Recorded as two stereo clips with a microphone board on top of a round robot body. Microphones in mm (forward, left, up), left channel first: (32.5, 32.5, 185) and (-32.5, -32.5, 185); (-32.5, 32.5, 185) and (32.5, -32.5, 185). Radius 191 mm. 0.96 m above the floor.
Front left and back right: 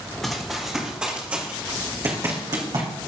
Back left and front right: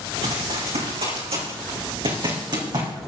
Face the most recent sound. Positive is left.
turn(degrees=-95)